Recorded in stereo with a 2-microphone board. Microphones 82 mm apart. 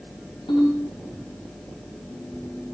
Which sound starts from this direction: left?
A ringtone, at 0.5 s.